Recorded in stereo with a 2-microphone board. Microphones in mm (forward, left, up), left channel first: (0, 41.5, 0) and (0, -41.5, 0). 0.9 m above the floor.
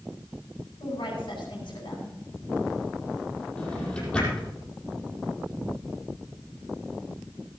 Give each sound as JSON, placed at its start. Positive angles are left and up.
{"t": 0.8, "sound": "a woman speaking", "side_deg": 75, "distance_m": 8.5}
{"t": 3.6, "sound": "a drawer", "side_deg": 15, "distance_m": 6.5}